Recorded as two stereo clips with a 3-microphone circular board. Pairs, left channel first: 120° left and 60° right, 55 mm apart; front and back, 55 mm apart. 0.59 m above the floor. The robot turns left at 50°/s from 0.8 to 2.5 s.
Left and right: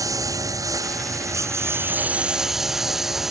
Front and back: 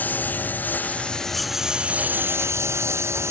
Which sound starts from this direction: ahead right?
A lawn mower, at 0.0 s.